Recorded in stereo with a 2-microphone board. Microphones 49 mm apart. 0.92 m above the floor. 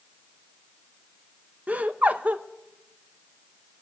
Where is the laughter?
30° right (ahead or behind), 1.0 m.